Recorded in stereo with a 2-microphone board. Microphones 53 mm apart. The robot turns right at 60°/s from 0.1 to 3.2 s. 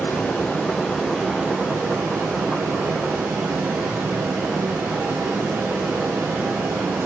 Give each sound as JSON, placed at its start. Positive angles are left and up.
{"t": 0.0, "sound": "running water", "azimuth_deg": 120, "distance_m": 4.0}